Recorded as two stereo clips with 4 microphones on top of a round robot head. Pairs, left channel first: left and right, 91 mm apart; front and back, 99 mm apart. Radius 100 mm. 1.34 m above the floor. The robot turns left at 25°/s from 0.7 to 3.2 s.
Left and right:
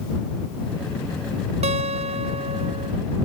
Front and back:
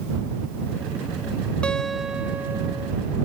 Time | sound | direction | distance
1.6 | a guitar | 85° right | ?